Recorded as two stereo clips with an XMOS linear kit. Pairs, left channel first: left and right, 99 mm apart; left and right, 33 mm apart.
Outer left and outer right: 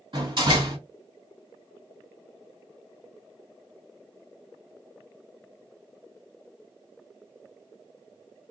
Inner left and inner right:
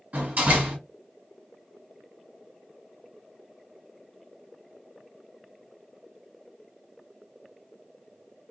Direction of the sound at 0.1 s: 50° right (ahead or behind).